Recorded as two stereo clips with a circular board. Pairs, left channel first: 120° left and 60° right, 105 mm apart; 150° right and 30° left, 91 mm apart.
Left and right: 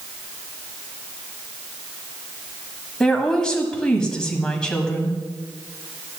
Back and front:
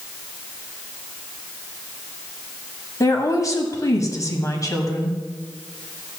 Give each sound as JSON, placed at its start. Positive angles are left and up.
{"t": 3.0, "sound": "a woman speaking", "azimuth_deg": -160, "distance_m": 1.4}